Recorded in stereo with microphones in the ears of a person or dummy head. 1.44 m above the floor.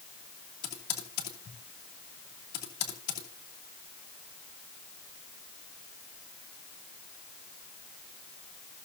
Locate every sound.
0.6 s typing on a keyboard: 55° left (ahead or behind), 2.5 m